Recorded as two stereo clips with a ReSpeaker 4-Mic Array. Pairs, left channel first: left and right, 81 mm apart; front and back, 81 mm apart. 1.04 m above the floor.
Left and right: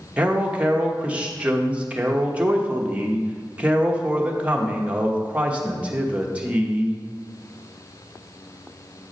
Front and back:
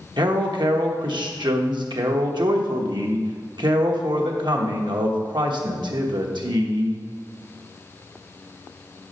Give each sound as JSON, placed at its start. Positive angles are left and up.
{"t": 0.2, "sound": "a man speaking", "azimuth_deg": -165, "distance_m": 1.0}